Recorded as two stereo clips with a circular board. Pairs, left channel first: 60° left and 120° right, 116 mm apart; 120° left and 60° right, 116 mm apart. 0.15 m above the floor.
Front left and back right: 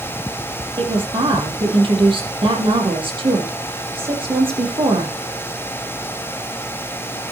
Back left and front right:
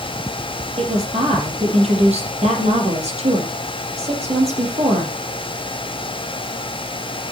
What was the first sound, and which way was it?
A woman speaking, 80° right.